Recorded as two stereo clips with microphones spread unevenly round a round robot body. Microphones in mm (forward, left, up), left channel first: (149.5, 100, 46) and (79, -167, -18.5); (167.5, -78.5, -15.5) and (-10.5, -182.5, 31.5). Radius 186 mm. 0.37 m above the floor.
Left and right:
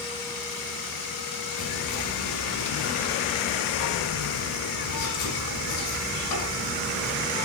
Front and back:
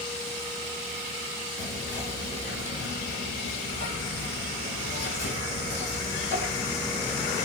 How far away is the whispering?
About 2 m.